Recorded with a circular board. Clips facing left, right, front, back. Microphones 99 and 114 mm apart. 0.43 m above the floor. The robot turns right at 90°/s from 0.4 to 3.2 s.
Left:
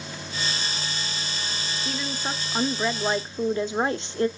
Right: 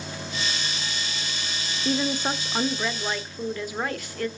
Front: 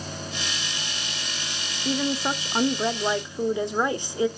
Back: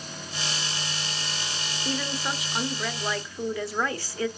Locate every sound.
1.9 s a woman speaking: 70° right, 0.8 m; by 4.3 s 50° left, 0.8 m